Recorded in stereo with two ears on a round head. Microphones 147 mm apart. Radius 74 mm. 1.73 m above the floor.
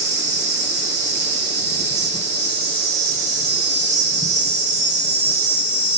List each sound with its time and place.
0.0 s an insect: 45° right (ahead or behind), 0.9 m